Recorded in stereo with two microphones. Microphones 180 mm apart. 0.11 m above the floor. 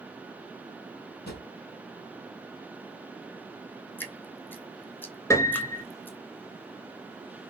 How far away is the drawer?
About 1.7 m.